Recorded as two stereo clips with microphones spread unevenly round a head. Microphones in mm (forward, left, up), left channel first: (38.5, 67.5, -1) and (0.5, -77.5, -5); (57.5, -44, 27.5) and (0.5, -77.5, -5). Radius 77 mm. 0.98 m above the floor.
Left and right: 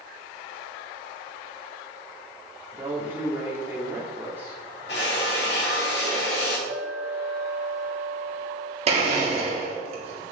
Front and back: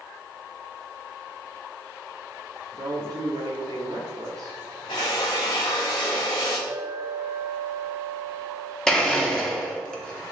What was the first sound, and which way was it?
A woman speaking, 175° left.